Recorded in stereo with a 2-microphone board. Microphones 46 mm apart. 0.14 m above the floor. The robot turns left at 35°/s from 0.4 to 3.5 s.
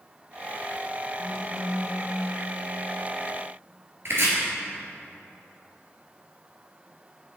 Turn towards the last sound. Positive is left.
turn(degrees=-60)  # may be behind; listen again after turning